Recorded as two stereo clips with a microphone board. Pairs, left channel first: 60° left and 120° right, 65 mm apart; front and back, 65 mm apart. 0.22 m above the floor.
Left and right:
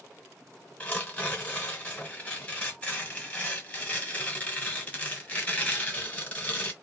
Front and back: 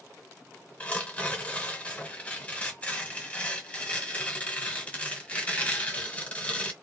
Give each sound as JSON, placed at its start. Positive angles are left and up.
{"t": 0.8, "sound": "tearing paper", "azimuth_deg": 30, "distance_m": 1.3}